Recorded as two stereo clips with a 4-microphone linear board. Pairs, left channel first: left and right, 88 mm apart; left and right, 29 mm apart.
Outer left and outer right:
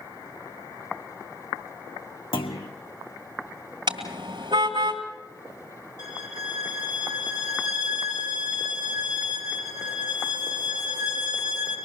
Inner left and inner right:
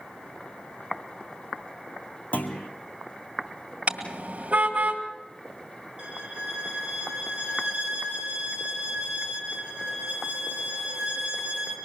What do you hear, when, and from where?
2.3 s a clunk: 85° left, 2 m
3.9 s a car horn: 60° right (ahead or behind), 2 m
6.0 s a violin: 45° right (ahead or behind), 3 m